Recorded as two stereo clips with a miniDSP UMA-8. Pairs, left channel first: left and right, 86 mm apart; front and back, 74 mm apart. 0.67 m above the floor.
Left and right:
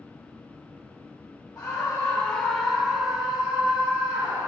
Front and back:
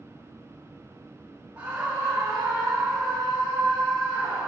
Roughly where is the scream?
Behind left.